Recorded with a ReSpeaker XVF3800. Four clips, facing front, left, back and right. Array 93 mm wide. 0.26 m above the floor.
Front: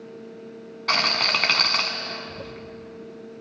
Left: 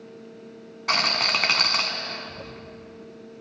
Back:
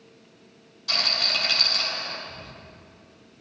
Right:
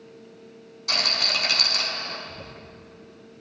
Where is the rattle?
35° left, 1.2 m.